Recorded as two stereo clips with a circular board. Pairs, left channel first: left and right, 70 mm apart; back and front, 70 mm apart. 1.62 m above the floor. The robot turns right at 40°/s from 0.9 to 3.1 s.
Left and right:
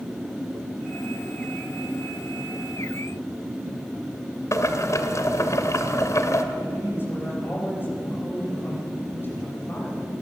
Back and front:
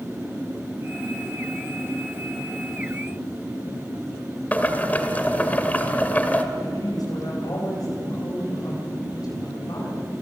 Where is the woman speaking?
150° left, 9.5 m.